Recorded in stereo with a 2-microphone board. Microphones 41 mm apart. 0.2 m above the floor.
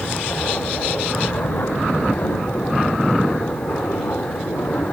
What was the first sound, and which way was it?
An aircraft, 55° left (ahead or behind).